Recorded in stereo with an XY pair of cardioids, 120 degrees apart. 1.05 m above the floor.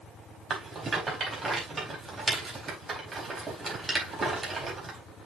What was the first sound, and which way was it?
A rattle, 25° right.